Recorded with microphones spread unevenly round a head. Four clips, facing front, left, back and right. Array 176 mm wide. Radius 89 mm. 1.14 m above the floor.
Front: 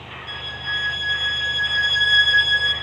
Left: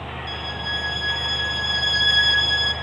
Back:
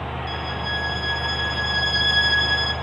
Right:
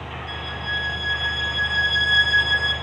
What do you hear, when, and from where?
0.3 s a violin: 120° left, 6 m